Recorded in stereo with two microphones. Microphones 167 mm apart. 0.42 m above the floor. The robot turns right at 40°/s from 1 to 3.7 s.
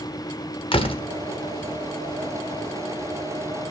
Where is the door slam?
35° left (ahead or behind), 0.8 m.